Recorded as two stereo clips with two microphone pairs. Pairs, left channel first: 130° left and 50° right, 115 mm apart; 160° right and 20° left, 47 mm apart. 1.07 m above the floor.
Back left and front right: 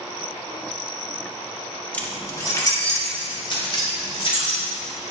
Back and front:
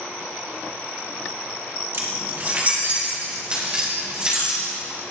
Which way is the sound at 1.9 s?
55° left.